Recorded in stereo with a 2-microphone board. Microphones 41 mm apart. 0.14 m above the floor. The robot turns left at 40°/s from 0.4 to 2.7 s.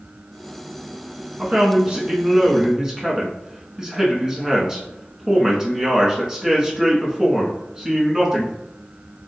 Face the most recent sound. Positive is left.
turn(degrees=-145)